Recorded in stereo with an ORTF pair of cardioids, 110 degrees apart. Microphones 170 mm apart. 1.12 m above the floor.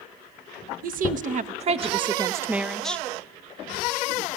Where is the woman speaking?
55° right, 1.2 m; by 3.0 s 10° left, 0.8 m.